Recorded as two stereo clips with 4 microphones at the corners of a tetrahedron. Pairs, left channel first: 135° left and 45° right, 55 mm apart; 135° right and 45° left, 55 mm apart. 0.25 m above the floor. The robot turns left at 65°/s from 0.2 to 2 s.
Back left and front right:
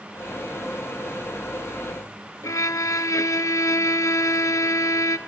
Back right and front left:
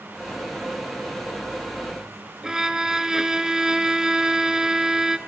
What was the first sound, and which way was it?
A violin, 125° left.